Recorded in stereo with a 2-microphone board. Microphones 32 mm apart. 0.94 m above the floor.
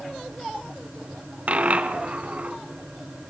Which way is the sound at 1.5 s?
45° right (ahead or behind).